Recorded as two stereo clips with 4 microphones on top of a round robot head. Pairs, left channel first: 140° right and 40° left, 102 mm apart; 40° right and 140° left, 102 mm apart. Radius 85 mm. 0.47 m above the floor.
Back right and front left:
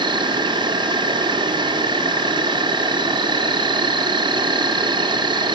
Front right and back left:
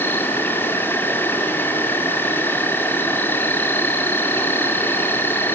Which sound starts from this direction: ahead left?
An insect, at 0.0 s.